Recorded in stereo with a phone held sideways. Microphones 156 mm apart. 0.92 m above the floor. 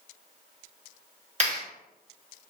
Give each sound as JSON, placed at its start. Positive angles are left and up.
{"t": 1.4, "sound": "a clap", "side_deg": -45, "distance_m": 1.4}